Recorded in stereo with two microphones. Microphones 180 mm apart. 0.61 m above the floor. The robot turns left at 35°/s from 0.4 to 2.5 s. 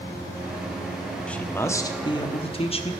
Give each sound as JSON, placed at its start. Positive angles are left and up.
{"t": 1.3, "sound": "a man speaking", "azimuth_deg": 170, "distance_m": 1.1}